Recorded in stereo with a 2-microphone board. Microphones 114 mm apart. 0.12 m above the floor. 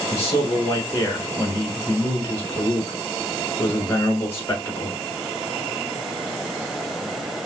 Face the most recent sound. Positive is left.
turn(degrees=25)  # may be behind; listen again after turning